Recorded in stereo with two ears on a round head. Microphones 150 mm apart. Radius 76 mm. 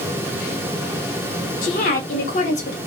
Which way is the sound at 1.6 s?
45° left (ahead or behind).